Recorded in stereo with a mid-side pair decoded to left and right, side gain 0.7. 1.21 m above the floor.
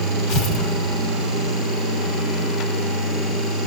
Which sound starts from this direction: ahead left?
Tearing paper, at 0.3 s.